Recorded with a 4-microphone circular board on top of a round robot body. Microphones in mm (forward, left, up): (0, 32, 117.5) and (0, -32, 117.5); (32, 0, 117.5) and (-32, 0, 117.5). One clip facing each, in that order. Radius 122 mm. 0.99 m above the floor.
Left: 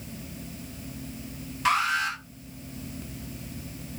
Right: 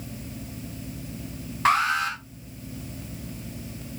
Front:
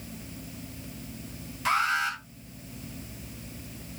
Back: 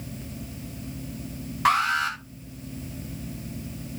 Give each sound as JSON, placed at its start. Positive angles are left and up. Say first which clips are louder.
{"t": 1.6, "sound": "an alarm", "louder": "right 3 dB, back 4 dB", "azimuth_deg": -140, "distance_m": 4.0}